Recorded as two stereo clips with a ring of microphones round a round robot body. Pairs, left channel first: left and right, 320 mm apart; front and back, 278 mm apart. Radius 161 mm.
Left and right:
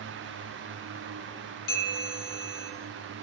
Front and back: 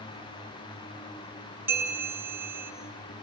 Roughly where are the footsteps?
I don't hear footsteps.